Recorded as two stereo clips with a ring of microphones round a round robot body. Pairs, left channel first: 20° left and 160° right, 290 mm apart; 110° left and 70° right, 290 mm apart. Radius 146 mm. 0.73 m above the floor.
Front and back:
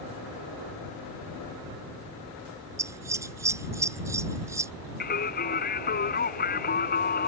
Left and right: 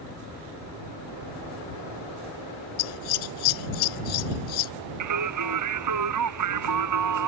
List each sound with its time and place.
2.8 s scissors: 120° left
5.0 s singing: 40° right